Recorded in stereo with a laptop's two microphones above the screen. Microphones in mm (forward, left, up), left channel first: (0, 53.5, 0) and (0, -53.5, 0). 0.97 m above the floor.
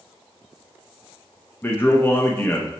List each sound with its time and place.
1.6 s a man speaking: 20° left (ahead or behind), 0.7 m